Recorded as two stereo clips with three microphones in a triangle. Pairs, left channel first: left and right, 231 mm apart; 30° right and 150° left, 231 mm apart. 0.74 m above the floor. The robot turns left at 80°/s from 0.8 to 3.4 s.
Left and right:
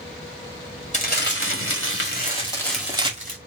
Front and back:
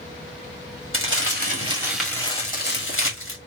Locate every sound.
0.9 s crumpling: 145° left, 2 m; by 3.4 s 50° right, 2 m